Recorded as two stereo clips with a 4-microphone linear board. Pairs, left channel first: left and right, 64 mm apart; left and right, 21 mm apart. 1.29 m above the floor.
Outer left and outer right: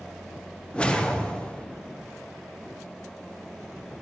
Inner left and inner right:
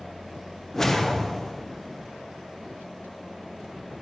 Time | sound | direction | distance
0.7 | a whoosh | 15° left (ahead or behind) | 0.7 m